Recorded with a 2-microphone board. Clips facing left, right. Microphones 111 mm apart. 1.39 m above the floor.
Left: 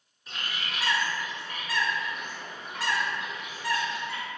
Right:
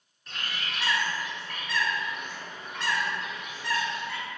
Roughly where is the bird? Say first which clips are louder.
Even; centre.